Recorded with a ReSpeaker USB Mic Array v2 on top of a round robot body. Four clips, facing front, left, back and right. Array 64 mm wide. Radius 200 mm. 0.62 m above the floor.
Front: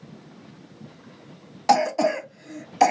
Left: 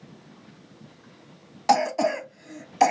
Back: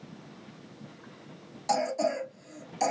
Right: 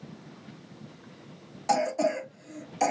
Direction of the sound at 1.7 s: 45° left.